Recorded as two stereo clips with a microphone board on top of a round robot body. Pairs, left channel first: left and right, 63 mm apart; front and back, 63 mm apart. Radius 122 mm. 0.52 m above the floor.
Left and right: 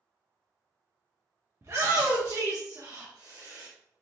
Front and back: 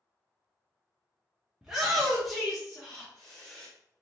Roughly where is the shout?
Right.